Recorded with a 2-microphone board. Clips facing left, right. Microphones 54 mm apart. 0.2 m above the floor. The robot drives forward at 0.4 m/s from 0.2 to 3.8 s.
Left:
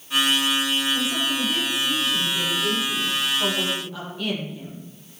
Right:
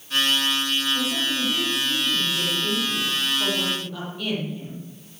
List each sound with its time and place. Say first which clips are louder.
0.9 s a woman speaking: left 1 dB; 5° left (ahead or behind), 7 m